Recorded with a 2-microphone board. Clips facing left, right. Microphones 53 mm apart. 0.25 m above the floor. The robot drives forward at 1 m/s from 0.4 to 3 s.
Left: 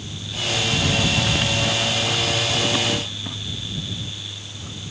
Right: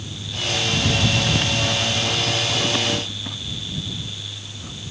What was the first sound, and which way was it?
Only background noise.